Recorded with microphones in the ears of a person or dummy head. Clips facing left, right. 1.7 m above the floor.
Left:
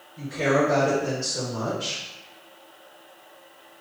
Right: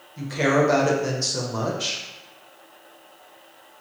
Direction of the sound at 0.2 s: 80° right.